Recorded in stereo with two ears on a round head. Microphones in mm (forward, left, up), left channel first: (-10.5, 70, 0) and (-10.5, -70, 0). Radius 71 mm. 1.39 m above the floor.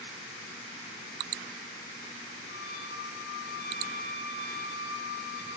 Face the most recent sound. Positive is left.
turn(degrees=60)  # may be behind; listen again after turning